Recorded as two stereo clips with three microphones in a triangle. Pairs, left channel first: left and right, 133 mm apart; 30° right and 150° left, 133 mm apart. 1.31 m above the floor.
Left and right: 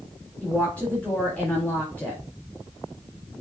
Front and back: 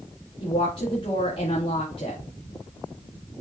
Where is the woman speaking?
10° left, 3.5 m.